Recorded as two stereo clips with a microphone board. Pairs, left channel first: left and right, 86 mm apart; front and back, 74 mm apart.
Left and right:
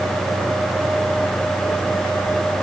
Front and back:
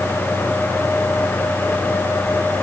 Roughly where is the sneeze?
No sneeze in this recording.